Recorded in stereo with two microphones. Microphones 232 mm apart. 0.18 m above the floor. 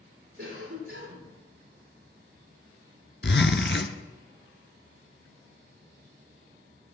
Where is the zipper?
55° left (ahead or behind), 1.0 m.